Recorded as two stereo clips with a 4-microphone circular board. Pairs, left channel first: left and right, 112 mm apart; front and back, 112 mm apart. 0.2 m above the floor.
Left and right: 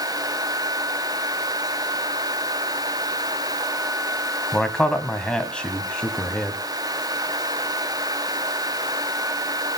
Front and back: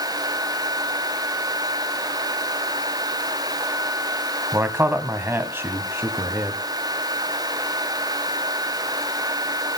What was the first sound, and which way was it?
A man speaking, 160° left.